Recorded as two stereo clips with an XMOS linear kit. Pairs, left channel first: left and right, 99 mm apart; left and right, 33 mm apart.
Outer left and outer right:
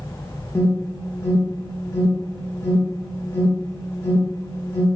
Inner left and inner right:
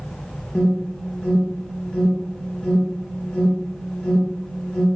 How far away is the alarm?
About 1.4 m.